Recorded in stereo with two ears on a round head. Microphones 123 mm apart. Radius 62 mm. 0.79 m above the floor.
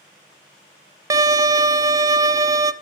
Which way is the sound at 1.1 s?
25° right (ahead or behind).